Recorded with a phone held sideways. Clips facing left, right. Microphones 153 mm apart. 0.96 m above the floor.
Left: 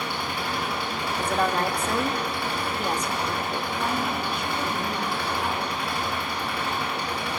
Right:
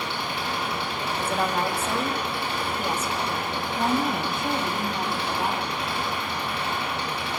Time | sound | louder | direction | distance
0.0 | an engine running | even | 25° right (ahead or behind) | 8 m
1.2 | a woman speaking | left 2 dB | 5° right (ahead or behind) | 2 m
3.8 | a woman speaking | right 6 dB | 45° right (ahead or behind) | 2.5 m